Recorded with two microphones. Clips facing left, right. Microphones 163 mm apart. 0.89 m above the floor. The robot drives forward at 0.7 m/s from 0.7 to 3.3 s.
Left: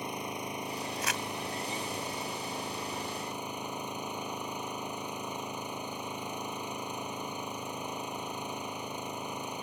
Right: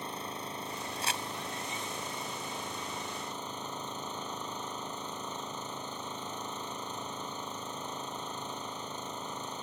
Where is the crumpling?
30° right (ahead or behind).